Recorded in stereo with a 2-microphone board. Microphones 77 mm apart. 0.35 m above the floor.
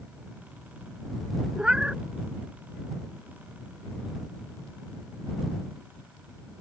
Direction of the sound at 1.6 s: 10° right (ahead or behind).